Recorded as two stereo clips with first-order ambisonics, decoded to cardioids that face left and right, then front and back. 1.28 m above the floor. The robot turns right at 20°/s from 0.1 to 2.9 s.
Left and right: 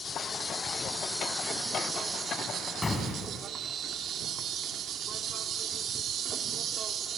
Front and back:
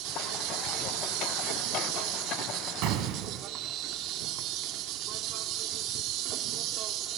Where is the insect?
160° left, 2 m; by 7.2 s 145° right, 2 m.